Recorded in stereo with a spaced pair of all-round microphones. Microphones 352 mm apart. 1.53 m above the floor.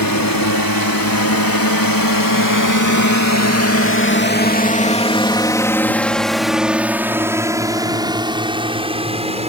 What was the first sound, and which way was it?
A drone, 80° left.